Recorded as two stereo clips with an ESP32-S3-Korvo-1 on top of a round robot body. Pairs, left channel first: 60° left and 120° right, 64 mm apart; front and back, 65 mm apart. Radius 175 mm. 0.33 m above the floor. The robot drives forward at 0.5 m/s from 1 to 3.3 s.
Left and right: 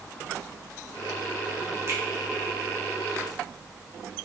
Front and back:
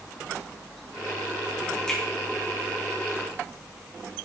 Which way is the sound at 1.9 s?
80° right.